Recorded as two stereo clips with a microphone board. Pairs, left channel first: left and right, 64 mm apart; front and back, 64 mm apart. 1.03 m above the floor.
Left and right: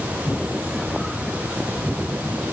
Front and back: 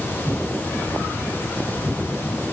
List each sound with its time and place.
Only background noise.